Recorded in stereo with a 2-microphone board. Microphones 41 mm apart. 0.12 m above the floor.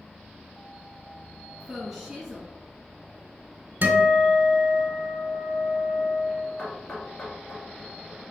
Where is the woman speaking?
Centre (ahead or behind), 1.5 m.